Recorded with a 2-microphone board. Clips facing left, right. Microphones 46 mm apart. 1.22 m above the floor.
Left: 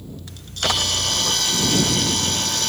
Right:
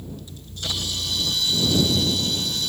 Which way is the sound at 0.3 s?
75° left (ahead or behind).